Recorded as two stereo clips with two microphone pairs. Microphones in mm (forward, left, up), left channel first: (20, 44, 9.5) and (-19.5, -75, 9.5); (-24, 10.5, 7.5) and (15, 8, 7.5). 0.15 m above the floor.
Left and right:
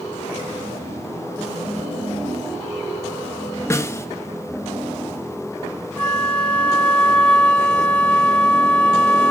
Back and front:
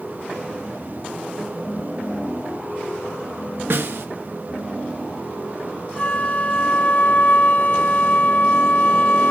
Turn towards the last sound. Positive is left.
turn(degrees=150)